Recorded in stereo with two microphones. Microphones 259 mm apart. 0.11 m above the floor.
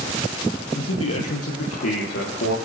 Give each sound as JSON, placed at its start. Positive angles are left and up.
{"t": 0.7, "sound": "a man speaking", "side_deg": 55, "distance_m": 3.0}